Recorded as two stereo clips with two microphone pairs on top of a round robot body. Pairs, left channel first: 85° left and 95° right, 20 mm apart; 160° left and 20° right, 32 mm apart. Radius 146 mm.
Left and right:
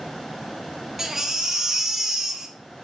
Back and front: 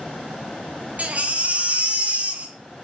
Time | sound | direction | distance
1.0 | a baby crying | 30° right | 0.7 m